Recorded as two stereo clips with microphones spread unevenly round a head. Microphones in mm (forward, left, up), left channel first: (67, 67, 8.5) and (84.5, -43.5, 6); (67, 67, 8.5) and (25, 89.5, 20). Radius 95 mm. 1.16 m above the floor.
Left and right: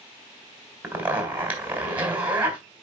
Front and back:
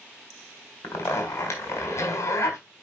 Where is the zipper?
5° right, 3.5 m.